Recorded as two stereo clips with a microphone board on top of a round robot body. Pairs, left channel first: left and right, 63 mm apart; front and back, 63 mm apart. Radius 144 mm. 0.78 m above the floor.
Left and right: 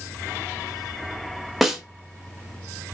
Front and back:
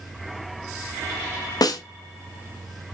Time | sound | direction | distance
1.6 | a snare drum | straight ahead | 0.8 m